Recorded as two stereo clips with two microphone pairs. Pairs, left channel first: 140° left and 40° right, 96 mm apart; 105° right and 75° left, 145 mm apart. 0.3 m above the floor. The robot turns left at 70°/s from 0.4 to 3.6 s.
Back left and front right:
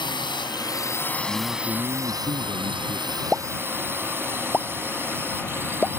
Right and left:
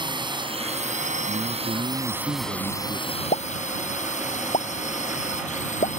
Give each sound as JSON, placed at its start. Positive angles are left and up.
{"t": 0.0, "sound": "a drone", "azimuth_deg": 125}
{"t": 1.3, "sound": "a man speaking", "azimuth_deg": 70}
{"t": 3.3, "sound": "a pop", "azimuth_deg": -125}